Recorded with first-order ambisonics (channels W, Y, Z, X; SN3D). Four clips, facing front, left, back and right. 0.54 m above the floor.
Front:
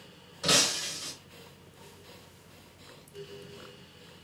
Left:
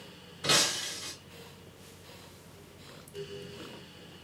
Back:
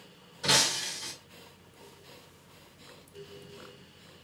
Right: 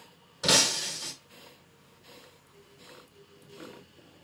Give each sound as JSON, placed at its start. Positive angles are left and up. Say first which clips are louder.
{"t": 0.4, "sound": "breaking glass", "louder": "right 3 dB, even", "azimuth_deg": -80, "distance_m": 1.4}